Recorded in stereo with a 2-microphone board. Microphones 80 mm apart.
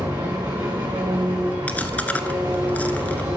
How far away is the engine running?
About 3.5 m.